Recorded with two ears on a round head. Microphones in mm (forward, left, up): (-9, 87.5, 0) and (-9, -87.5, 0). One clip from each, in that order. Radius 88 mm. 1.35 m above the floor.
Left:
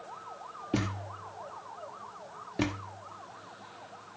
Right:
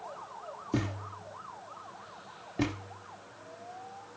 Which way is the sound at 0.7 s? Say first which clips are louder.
Left 1 dB; 20° left (ahead or behind).